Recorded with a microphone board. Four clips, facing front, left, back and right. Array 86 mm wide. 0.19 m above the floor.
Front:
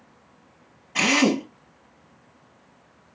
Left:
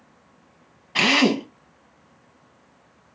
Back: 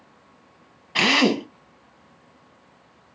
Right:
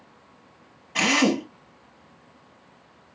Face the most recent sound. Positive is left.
turn(degrees=145)